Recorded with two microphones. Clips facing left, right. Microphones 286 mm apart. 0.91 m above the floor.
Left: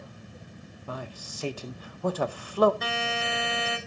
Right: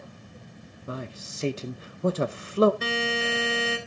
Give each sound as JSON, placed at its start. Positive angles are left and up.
{"t": 0.9, "sound": "a man speaking", "side_deg": -25, "distance_m": 0.7}
{"t": 2.8, "sound": "a buzzer", "side_deg": -30, "distance_m": 3.5}